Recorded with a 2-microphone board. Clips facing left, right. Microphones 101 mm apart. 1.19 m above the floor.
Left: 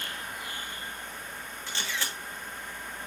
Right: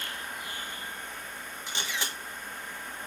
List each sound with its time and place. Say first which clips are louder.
1.7 s a camera shutter: even; 20° right (ahead or behind), 1.4 m